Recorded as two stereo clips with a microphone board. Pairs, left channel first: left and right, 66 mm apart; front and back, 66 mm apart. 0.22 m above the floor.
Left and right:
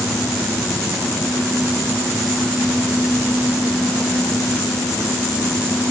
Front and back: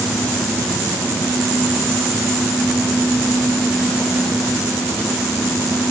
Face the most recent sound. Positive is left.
No sound to turn to.